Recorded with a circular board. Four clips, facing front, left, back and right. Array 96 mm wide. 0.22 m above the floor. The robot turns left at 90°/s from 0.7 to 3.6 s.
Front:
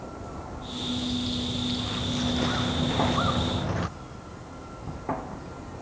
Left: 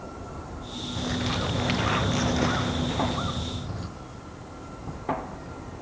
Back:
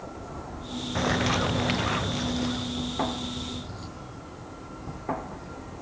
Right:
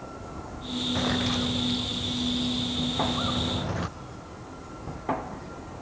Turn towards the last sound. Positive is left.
turn(degrees=-30)